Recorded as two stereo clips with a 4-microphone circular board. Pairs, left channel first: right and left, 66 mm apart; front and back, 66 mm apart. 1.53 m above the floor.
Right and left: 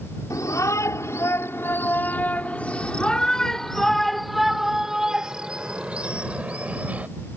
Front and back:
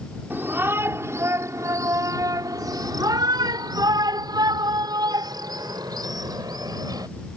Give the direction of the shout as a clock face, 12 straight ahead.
4 o'clock.